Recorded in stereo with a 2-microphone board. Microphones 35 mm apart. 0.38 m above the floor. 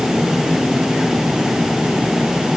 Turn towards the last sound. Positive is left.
No sound to turn to.